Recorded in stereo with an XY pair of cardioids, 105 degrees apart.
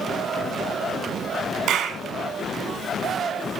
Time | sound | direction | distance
1.7 | a clap | 70° right | 2.5 m